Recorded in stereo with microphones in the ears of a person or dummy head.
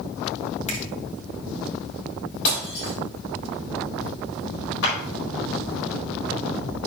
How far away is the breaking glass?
About 4.5 m.